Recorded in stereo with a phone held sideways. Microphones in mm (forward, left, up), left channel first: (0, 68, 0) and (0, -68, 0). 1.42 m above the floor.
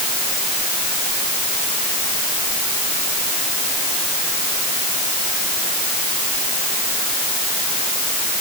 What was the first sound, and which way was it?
Only background noise.